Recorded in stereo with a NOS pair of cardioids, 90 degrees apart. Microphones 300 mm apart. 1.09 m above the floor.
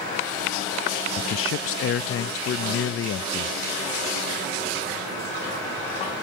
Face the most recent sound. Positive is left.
turn(degrees=50)